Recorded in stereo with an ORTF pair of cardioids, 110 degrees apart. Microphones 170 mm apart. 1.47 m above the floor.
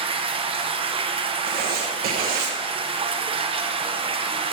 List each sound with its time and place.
0.0 s running water: 30° right, 1.0 m
1.5 s writing: 65° right, 1.5 m